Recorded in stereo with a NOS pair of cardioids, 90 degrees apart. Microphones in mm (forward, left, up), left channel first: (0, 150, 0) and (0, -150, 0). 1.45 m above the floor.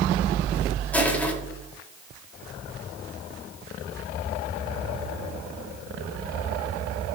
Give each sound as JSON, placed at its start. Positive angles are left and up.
{"t": 0.9, "sound": "crushing", "azimuth_deg": 5, "distance_m": 4.5}